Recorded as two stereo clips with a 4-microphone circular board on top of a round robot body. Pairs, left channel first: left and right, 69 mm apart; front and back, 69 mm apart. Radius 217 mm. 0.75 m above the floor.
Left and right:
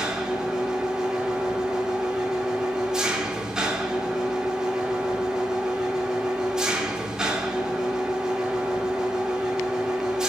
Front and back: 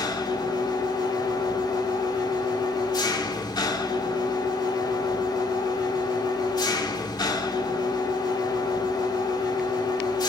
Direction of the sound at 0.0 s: 10° right.